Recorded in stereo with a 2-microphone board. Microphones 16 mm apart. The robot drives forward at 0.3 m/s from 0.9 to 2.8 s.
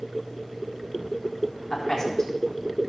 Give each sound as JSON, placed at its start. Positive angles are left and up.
{"t": 1.7, "sound": "a man speaking", "side_deg": 20, "distance_m": 4.0}